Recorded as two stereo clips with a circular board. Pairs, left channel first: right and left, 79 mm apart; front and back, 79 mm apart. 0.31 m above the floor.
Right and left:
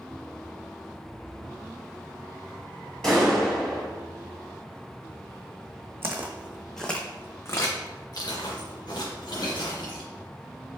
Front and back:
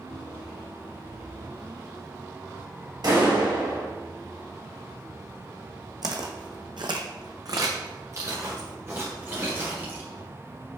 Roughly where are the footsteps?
Behind left.